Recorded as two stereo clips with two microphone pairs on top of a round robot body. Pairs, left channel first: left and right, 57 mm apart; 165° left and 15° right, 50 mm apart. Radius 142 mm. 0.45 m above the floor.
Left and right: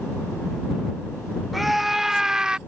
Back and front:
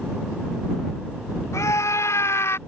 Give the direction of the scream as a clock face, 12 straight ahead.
6 o'clock.